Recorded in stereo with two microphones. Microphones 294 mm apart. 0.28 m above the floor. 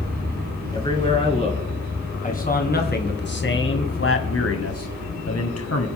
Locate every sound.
0.7 s a man speaking: 15° left (ahead or behind), 3 m; by 5.9 s 55° left (ahead or behind), 2.0 m